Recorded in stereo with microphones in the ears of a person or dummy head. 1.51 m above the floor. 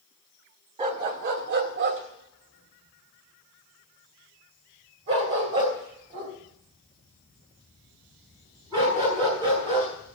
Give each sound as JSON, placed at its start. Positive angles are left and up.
{"t": 0.8, "sound": "a dog barking", "side_deg": -20, "distance_m": 1.1}